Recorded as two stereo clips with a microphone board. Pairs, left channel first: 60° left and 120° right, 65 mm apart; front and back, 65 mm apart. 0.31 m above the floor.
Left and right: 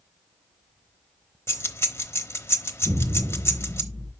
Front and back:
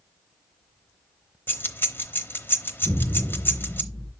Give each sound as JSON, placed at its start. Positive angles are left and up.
{"t": 1.5, "sound": "keys jangling", "azimuth_deg": 45, "distance_m": 0.9}
{"t": 2.8, "sound": "an explosion", "azimuth_deg": -85, "distance_m": 3.5}